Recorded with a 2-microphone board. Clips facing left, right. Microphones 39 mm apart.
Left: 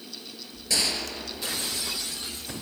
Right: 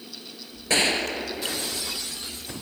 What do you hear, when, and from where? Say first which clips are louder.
0.7 s a gunshot: right 6 dB; 40° right (ahead or behind), 1.3 m